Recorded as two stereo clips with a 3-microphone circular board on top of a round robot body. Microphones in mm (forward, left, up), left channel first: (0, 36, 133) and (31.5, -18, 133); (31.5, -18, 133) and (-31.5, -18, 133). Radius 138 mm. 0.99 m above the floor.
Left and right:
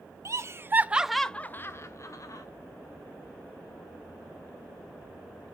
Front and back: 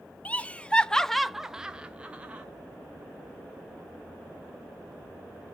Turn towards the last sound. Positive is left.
turn(degrees=115)